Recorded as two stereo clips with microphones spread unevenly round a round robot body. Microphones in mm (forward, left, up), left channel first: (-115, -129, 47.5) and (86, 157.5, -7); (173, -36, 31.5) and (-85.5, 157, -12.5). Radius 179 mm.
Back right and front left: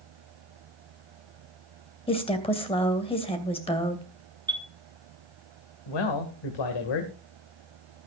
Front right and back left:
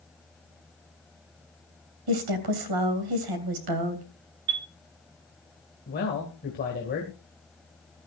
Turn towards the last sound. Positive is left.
turn(degrees=-105)